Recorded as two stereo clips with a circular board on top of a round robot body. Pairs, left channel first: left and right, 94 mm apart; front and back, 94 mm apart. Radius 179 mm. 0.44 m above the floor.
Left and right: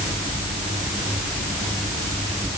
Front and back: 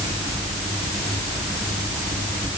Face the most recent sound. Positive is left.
No sound to turn to.